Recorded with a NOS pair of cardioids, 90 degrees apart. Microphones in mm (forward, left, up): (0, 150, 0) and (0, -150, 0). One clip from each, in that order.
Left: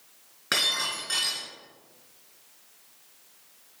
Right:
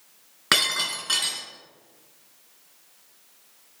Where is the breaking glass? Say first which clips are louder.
Right 3 dB; 60° right, 3 m.